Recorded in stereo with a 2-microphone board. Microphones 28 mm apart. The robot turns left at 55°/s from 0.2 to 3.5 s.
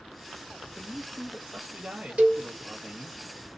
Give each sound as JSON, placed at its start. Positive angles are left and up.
{"t": 0.7, "sound": "a man speaking", "azimuth_deg": 5, "distance_m": 1.1}
{"t": 2.2, "sound": "a cowbell", "side_deg": -60, "distance_m": 1.3}